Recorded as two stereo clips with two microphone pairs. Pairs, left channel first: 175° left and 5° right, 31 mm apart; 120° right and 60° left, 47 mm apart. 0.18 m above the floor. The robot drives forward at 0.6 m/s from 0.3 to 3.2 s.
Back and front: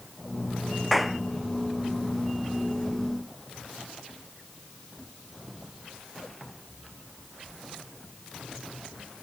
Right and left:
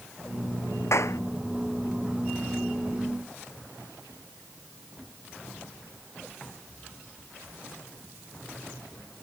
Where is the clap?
95° right; by 1.2 s 100° right.